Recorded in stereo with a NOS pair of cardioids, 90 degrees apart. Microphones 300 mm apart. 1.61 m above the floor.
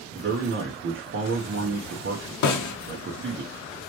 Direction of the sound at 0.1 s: 40° right.